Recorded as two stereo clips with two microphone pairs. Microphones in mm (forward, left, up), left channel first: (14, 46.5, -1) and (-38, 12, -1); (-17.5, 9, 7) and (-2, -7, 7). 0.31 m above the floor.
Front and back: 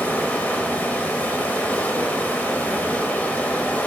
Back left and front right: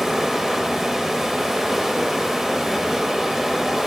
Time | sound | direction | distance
0.0 | running water | 5° left | 0.9 m